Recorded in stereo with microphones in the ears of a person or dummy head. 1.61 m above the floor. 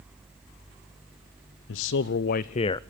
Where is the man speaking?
75° left (ahead or behind), 0.8 m; by 2.8 s 20° left (ahead or behind), 0.5 m.